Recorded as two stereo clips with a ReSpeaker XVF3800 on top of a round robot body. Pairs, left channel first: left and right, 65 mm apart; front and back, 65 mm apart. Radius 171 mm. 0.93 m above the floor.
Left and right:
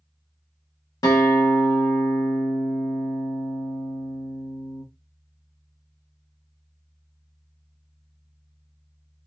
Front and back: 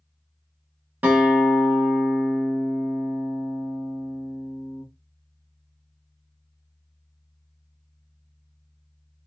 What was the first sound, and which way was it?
A guitar, 115° left.